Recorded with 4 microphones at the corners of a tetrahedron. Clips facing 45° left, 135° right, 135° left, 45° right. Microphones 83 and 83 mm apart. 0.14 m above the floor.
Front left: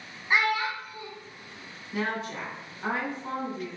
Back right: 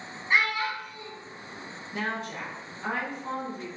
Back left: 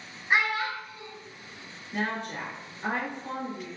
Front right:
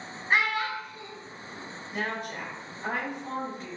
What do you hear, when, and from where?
0.3 s a child speaking: 70° left, 0.8 m
1.9 s a woman speaking: 105° left, 1.7 m